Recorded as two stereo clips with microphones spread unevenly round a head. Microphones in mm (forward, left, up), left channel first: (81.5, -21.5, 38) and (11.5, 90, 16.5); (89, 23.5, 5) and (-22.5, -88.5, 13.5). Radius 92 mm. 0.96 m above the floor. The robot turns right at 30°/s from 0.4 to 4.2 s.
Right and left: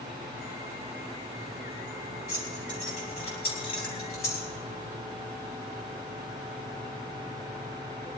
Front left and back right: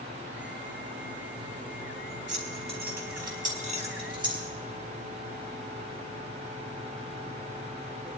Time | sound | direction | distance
2.3 | keys jangling | 135° right | 4.5 m